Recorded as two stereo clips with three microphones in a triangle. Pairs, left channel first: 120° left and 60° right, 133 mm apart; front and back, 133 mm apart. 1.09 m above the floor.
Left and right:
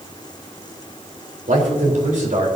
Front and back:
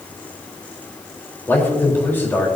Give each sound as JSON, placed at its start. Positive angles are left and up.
{"t": 1.5, "sound": "a man speaking", "azimuth_deg": -75, "distance_m": 4.0}